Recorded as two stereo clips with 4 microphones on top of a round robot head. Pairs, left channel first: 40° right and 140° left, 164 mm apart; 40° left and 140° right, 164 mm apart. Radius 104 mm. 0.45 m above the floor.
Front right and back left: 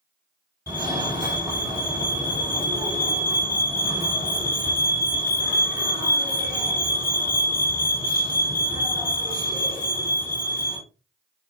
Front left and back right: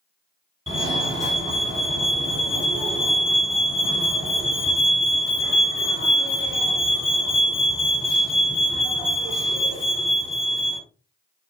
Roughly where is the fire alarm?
Behind.